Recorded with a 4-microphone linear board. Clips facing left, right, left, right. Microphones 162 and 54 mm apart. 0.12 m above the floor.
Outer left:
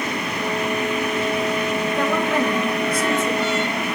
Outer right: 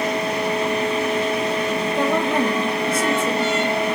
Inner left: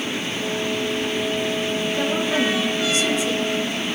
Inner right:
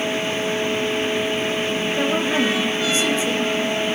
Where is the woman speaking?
20° right (ahead or behind), 2.0 m; by 3.6 s 35° right (ahead or behind), 1.8 m.